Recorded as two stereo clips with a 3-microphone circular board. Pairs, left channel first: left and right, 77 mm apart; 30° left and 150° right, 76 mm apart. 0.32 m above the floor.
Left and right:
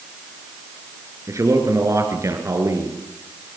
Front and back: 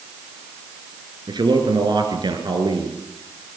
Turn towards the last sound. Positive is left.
turn(degrees=-140)